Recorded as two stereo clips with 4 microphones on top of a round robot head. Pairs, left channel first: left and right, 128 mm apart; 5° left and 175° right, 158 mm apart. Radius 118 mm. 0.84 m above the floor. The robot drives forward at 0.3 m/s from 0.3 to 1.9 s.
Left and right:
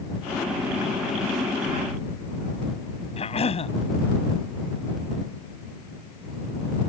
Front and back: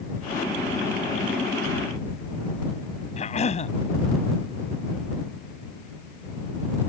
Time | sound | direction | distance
3.2 | a cough | 50° left | ?